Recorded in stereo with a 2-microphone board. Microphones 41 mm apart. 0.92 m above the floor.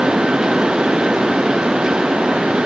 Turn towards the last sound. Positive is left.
No sound to turn to.